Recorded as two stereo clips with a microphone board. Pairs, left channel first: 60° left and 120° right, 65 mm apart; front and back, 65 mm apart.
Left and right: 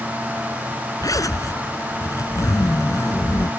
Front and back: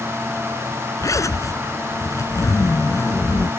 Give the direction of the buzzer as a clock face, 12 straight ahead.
No buzzer in this recording.